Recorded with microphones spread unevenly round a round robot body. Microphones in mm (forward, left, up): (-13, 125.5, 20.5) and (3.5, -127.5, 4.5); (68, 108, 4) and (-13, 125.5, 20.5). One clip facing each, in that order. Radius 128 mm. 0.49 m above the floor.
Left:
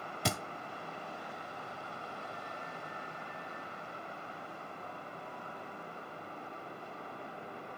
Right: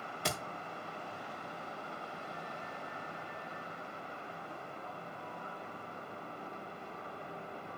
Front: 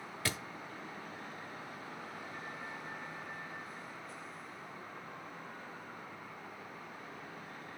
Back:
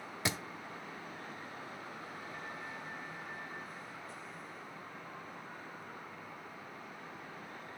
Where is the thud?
95° left, 1.2 m.